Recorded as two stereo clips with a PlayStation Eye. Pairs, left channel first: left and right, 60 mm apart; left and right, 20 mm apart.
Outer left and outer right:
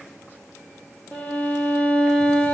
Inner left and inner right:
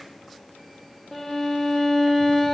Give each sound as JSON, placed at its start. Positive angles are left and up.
{"t": 1.1, "sound": "a violin", "side_deg": 25, "distance_m": 1.9}